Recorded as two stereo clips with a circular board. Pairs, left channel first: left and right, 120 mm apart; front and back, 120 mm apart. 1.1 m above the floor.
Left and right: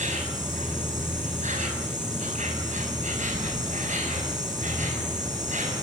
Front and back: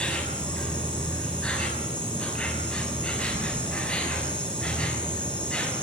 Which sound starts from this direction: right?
An insect, at 0.0 s.